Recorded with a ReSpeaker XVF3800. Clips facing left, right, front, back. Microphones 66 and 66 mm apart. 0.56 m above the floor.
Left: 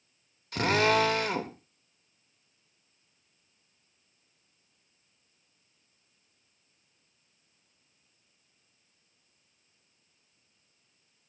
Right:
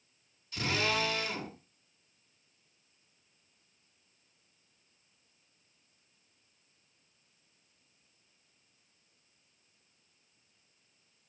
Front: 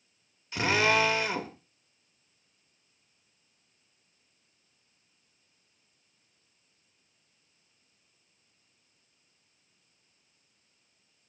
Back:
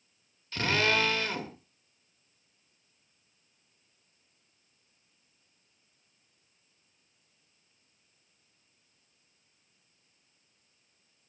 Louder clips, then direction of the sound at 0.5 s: Left 8 dB, front 2 dB; 70° left.